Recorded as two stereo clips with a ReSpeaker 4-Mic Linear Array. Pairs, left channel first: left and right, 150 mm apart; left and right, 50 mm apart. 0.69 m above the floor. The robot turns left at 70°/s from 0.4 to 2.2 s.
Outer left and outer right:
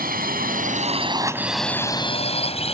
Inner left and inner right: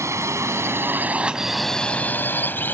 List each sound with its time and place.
0.0 s a drone: 75° right (ahead or behind); by 2.7 s 40° left (ahead or behind)